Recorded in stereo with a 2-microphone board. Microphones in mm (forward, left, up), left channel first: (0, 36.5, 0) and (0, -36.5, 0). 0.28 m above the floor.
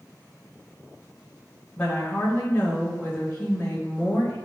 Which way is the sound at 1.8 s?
25° left (ahead or behind).